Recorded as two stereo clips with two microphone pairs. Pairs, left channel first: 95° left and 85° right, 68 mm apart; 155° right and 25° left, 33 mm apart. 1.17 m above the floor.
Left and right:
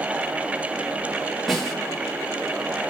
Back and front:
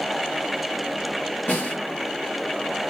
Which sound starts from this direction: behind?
A snare drum, at 1.5 s.